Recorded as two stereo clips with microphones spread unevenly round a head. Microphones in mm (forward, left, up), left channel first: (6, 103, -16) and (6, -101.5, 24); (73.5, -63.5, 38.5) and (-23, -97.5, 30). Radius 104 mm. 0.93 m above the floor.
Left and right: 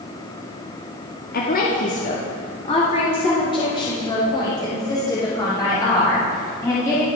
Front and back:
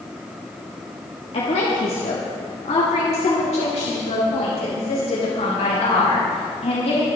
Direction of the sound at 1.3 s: 55° left.